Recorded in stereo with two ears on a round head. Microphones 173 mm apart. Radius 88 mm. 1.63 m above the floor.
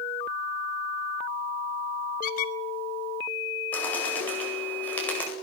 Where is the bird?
10° left (ahead or behind), 9 m.